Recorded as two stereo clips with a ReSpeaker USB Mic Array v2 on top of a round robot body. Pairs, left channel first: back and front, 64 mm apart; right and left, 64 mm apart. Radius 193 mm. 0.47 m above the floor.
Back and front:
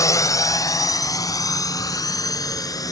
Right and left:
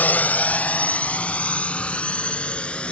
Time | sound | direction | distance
0.0 | a drone | 150° right | ?